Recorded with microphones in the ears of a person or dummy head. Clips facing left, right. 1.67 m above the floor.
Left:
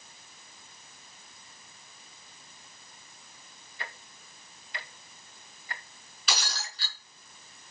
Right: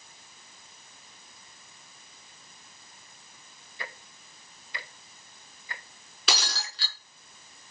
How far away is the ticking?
About 1.3 m.